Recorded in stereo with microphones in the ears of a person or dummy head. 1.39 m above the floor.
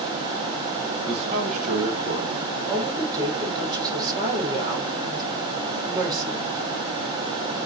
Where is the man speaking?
35° right (ahead or behind), 1.6 m; by 2.5 s 60° right (ahead or behind), 3 m.